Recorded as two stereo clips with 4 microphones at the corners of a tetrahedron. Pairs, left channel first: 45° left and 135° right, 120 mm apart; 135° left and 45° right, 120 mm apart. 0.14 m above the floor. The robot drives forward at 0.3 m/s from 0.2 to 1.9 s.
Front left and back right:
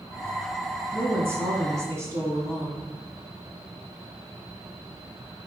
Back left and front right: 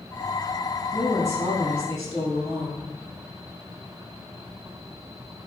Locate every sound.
0.9 s a woman speaking: 170° left, 1.5 m; by 2.9 s 175° left, 1.7 m